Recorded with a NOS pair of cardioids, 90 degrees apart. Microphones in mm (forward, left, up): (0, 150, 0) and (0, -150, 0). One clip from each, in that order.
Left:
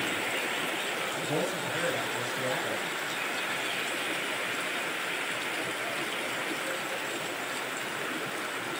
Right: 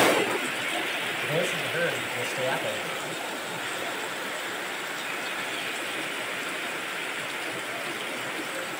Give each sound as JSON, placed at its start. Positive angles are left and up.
{"t": 1.2, "sound": "a man speaking", "azimuth_deg": -65, "distance_m": 4.0}